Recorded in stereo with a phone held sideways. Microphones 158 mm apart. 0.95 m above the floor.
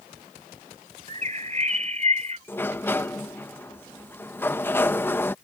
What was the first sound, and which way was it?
A bird, 50° right (ahead or behind).